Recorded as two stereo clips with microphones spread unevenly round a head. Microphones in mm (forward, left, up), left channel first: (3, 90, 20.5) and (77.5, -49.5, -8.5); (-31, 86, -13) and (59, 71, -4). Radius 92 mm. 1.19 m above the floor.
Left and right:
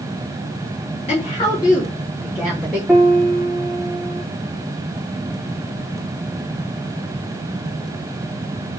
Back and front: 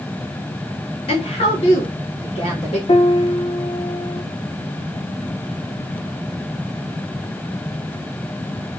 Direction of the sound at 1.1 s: Straight behind.